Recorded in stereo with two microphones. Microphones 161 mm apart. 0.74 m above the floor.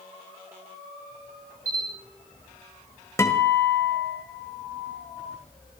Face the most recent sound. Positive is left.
turn(degrees=15)  # may be behind; listen again after turning